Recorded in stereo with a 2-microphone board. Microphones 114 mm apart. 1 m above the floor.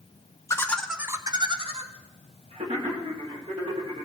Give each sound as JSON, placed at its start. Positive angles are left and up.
{"t": 0.5, "sound": "laughter", "side_deg": 25, "distance_m": 0.8}